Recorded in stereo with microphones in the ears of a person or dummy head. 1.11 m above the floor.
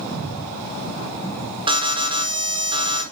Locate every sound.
1.7 s an alarm: 20° right (ahead or behind), 1.4 m